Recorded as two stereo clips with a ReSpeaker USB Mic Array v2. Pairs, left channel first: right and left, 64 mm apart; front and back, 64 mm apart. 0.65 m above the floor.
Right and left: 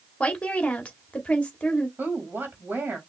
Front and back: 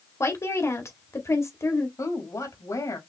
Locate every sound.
0.2 s a woman speaking: 20° right, 1.7 m
2.0 s a woman speaking: 30° left, 3 m